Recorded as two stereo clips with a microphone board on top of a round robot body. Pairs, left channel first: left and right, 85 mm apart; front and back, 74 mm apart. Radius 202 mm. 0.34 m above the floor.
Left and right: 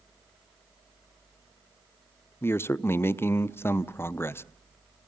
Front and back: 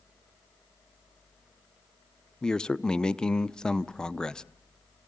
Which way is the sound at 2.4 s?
70° left.